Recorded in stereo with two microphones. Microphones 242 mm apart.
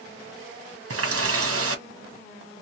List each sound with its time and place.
0.9 s a running tap: 60° right (ahead or behind), 0.9 m